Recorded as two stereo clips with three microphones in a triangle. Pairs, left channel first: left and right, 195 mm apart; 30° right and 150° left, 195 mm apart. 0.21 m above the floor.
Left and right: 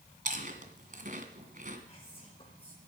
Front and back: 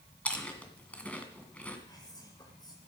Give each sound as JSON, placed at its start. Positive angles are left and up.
{"t": 0.2, "sound": "chewing", "azimuth_deg": -110, "distance_m": 2.0}
{"t": 1.9, "sound": "whispering", "azimuth_deg": 35, "distance_m": 2.5}